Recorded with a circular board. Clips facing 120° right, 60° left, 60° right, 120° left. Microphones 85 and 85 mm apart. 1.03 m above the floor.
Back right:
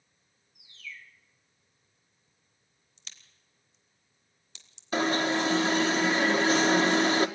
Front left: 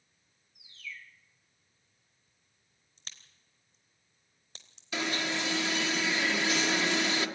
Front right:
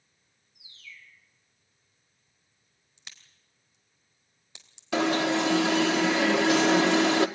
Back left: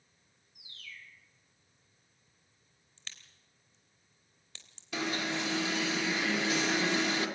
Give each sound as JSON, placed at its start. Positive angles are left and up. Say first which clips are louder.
{"t": 0.6, "sound": "a bird", "louder": "even, even", "azimuth_deg": 150, "distance_m": 3.0}
{"t": 3.0, "sound": "a crack", "louder": "front left 2 dB, even", "azimuth_deg": 15, "distance_m": 3.0}
{"t": 4.9, "sound": "an alarm", "louder": "back right 7 dB, front right 10 dB", "azimuth_deg": -70, "distance_m": 1.6}